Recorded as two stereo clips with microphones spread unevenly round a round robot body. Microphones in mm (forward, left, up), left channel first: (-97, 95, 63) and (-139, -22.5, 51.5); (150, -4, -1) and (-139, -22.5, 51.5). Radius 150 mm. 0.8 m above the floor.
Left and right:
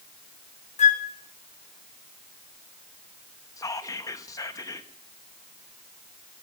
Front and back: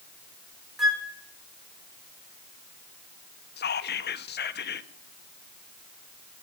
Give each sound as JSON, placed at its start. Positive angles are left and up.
{"t": 0.8, "sound": "a flute", "azimuth_deg": 90, "distance_m": 1.5}
{"t": 3.6, "sound": "whispering", "azimuth_deg": 10, "distance_m": 1.2}